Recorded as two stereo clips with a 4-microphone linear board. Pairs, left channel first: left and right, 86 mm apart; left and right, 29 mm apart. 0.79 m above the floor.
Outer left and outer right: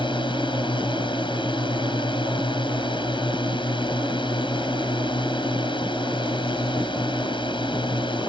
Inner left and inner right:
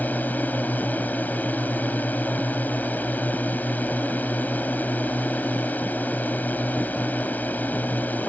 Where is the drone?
65° left (ahead or behind).